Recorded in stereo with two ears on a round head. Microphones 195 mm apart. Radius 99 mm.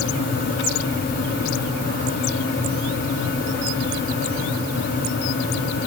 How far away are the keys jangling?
I don't hear keys jangling.